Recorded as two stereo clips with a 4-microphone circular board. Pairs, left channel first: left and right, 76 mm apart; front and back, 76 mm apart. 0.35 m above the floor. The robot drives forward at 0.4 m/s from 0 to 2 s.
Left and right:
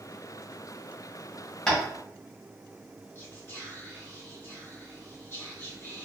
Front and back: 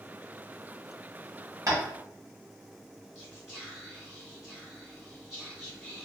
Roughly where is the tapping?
Behind.